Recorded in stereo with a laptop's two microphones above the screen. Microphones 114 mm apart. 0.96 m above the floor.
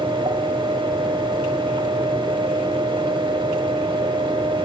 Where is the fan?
50° right (ahead or behind), 1.0 m.